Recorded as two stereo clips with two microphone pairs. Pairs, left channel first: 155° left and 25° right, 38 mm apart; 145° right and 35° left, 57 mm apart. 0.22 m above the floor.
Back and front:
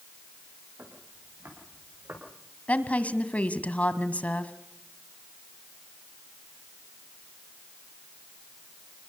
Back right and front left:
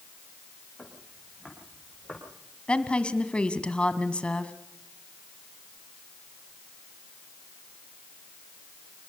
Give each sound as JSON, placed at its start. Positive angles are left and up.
{"t": 0.8, "sound": "footsteps", "azimuth_deg": -55, "distance_m": 9.5}
{"t": 2.7, "sound": "a woman speaking", "azimuth_deg": 160, "distance_m": 1.5}